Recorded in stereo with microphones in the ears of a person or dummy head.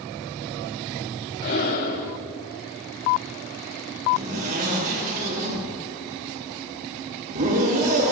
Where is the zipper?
50° right (ahead or behind), 4.5 m.